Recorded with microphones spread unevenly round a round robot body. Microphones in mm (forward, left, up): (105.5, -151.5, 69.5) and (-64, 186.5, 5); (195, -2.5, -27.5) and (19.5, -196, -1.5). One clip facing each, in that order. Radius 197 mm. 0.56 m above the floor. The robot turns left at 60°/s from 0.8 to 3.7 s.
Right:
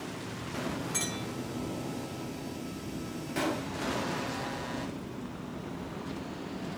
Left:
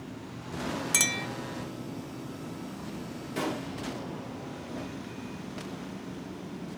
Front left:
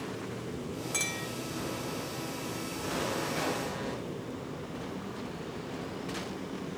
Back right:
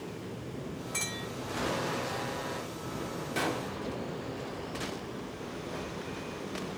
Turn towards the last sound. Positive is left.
turn(degrees=-175)